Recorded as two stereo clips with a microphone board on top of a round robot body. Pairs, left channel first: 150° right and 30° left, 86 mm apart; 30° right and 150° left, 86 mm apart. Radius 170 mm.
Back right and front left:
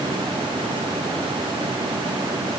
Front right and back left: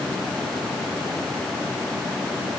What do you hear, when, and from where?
Only background noise.